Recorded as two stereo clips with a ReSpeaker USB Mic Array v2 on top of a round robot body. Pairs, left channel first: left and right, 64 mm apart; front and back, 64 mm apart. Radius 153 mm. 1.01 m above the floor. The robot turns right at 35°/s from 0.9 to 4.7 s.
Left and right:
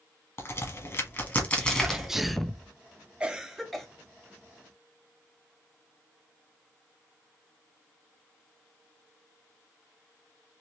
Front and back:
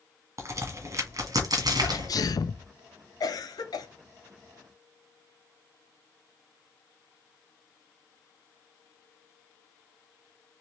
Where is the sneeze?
15° right, 0.7 m; by 2.7 s 15° left, 0.7 m.